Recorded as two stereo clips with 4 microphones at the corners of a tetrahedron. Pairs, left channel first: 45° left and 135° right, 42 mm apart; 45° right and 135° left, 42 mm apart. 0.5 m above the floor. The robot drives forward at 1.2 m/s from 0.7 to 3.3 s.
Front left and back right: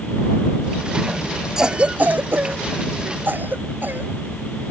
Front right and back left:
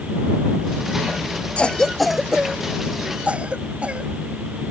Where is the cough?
70° right; by 4.1 s 170° right.